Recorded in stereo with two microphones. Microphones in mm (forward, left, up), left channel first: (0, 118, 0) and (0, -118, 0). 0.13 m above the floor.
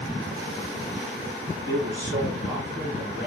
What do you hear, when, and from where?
1.7 s a man speaking: 20° left (ahead or behind), 1.7 m; by 3.3 s 10° right (ahead or behind), 1.7 m